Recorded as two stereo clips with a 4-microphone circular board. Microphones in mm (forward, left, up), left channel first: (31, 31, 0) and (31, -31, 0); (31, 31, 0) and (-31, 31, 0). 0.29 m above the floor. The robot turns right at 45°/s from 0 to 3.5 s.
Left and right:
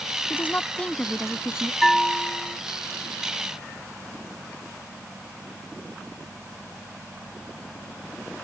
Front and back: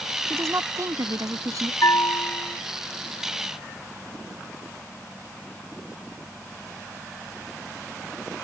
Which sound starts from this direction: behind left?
A woman speaking, at 0.3 s.